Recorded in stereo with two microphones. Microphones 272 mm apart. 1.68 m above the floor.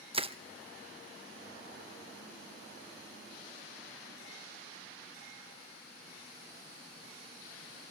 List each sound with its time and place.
0.1 s crushing: 20° right (ahead or behind), 0.9 m